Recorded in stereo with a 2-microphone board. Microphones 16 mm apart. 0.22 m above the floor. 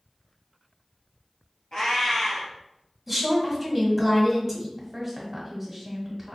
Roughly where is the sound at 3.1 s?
Centre.